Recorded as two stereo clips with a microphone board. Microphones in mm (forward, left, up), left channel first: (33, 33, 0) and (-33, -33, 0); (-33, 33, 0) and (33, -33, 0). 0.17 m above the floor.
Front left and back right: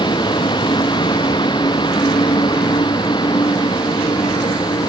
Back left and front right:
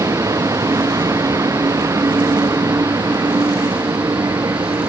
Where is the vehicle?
10° left.